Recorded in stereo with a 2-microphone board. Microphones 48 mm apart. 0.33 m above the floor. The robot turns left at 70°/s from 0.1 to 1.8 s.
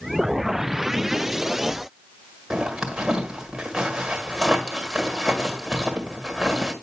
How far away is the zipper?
About 1.4 m.